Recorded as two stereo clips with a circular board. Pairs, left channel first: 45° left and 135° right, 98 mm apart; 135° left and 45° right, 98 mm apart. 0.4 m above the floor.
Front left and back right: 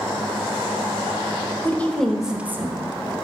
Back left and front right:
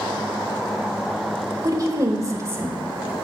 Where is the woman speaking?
15° right, 1.0 m; by 3.1 s 115° right, 1.1 m.